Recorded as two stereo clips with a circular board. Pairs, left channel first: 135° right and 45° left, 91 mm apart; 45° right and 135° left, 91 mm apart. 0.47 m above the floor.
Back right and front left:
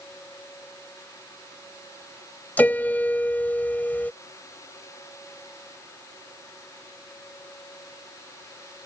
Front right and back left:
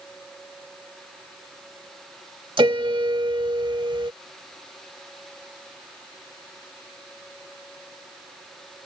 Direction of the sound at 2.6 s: 155° left.